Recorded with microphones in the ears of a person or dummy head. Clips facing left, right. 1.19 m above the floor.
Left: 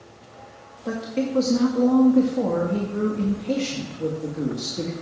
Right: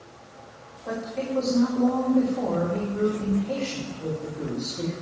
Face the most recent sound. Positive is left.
turn(degrees=60)  # may be behind; listen again after turning